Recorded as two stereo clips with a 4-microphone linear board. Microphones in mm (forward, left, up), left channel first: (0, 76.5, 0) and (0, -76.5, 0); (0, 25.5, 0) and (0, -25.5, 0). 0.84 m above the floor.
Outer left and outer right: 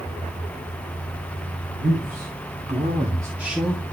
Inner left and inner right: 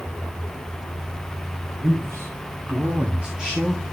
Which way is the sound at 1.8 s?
70° right (ahead or behind).